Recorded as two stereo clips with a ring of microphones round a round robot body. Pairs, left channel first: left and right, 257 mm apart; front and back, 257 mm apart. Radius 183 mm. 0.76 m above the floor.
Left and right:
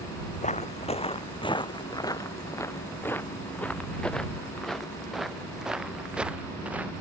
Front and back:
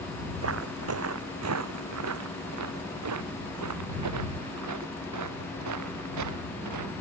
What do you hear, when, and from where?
0.4 s footsteps: 150° left; by 6.9 s 175° right